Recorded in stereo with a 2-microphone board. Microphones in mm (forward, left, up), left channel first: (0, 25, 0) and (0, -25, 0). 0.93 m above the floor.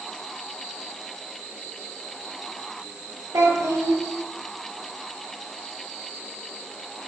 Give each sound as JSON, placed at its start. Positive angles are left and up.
{"t": 3.3, "sound": "a child speaking", "side_deg": -80, "distance_m": 0.9}